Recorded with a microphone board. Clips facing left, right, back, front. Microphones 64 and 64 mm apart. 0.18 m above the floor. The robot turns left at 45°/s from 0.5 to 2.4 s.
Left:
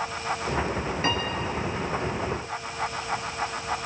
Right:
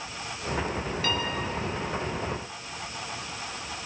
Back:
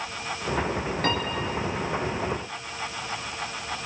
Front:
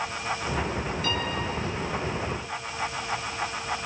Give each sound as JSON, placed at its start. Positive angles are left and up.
{"t": 1.0, "sound": "a piano", "azimuth_deg": 150, "distance_m": 3.5}